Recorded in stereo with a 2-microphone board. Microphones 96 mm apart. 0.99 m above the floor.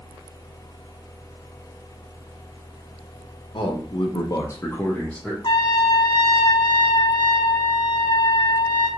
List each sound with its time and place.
3.5 s a man speaking: 65° left (ahead or behind), 0.8 m; by 5.3 s 5° left (ahead or behind), 0.9 m
5.4 s a trumpet: 55° left (ahead or behind), 0.5 m